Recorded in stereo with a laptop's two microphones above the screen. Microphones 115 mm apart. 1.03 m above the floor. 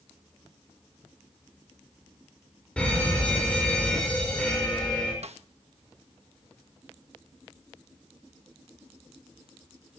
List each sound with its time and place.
2.8 s a fire alarm: 10° left (ahead or behind), 5.5 m
5.2 s a snare drum: 65° right (ahead or behind), 1.1 m